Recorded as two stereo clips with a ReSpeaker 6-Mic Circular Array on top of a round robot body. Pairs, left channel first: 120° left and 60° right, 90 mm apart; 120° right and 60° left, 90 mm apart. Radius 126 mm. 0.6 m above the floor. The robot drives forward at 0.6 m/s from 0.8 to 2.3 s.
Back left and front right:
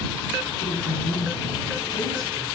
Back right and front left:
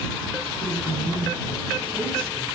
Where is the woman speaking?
100° left, 5 m; by 2.5 s 110° left, 5.5 m.